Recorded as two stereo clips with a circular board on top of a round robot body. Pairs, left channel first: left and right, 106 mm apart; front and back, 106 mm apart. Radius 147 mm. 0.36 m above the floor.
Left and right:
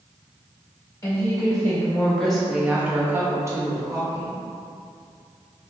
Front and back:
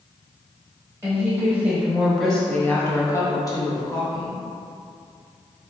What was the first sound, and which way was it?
A woman speaking, 125° left.